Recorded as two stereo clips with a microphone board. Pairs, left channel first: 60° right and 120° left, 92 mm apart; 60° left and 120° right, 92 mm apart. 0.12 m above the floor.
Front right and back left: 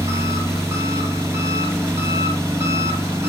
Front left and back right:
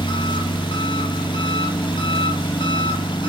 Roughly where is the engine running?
Ahead left.